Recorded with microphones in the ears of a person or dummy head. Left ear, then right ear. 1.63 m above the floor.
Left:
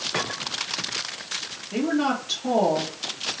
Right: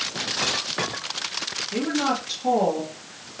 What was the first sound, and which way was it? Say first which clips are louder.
A woman speaking: left 2 dB; 5° left (ahead or behind).